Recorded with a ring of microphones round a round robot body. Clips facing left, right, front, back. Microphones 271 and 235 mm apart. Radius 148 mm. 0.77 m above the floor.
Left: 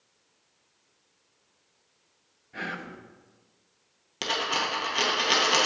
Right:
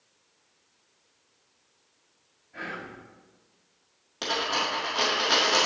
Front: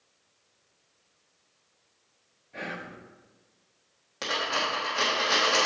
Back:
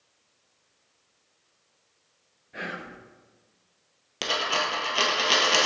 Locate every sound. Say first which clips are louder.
2.5 s whispering: left 1 dB, back 1 dB; 105° left, 0.8 m
4.2 s a dropped coin: right 1 dB, back 2 dB; 140° left, 1.3 m